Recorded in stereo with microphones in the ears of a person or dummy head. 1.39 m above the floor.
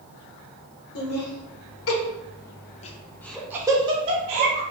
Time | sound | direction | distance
0.9 | laughter | 75° left (ahead or behind) | 1.2 m